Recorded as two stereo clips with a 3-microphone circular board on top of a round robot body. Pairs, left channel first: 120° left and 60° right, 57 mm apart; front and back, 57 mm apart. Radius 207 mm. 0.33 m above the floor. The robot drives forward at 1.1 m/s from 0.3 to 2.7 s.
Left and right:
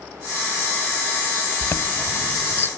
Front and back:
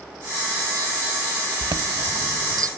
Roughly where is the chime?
Behind.